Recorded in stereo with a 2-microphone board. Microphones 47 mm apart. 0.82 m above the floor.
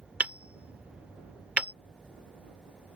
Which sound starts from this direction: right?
Hammering, at 0.2 s.